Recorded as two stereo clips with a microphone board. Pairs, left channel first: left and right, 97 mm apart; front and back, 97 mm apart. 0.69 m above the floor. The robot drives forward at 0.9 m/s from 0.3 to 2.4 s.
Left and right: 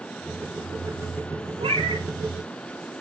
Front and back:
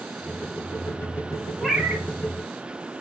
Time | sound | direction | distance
1.6 | a cat meowing | 90° right | 1.0 m